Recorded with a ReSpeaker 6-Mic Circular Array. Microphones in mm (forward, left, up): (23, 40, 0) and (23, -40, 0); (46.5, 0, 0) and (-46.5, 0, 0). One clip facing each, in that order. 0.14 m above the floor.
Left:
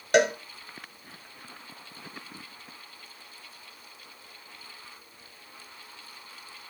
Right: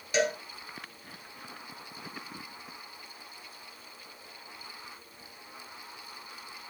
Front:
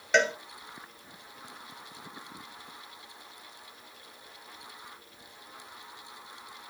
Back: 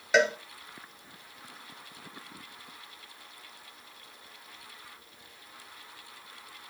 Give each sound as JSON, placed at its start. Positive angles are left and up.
{"t": 0.1, "sound": "a cowbell", "azimuth_deg": 95, "distance_m": 0.8}